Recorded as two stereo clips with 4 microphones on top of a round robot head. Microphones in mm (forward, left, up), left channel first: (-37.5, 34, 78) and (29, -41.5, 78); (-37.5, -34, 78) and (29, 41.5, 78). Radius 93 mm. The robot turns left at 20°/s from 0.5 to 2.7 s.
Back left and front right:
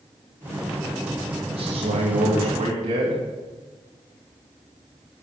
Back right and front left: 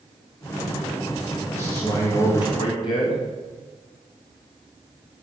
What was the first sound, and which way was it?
A man speaking, 65° right.